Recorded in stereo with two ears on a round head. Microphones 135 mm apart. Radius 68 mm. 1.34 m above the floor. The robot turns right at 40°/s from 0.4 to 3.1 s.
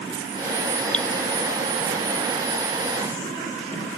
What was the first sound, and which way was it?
Dripping, 10° left (ahead or behind).